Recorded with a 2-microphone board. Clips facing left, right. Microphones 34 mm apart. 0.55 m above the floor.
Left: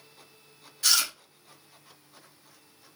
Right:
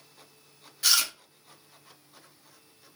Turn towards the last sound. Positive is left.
turn(degrees=-15)  # may be behind; listen again after turning